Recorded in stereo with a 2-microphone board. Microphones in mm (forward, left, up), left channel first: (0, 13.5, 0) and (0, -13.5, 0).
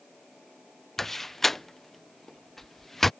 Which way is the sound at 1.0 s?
10° left (ahead or behind).